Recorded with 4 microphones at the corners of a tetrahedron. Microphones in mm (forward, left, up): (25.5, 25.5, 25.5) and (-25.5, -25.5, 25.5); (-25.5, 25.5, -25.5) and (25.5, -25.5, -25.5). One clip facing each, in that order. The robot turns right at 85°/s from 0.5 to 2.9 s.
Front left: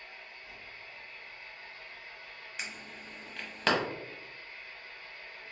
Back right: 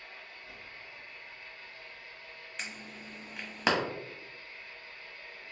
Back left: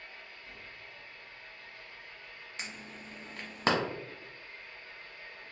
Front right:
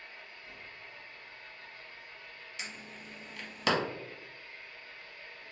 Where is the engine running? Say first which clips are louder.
Even, even; 105° right, 1.6 m; by 5.5 s 95° left, 1.6 m.